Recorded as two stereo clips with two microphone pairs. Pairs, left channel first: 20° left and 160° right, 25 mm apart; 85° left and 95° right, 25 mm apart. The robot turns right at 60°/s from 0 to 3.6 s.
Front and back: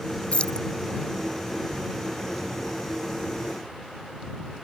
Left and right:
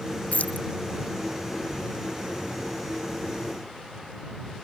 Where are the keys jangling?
60° left; by 0.7 s 85° left.